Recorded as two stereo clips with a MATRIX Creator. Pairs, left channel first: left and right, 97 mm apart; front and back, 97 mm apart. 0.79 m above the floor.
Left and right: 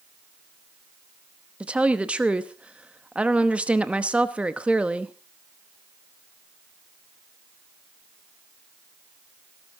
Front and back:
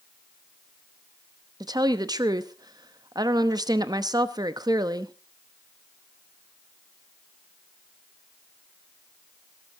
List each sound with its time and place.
1.6 s a woman speaking: 165° right, 0.9 m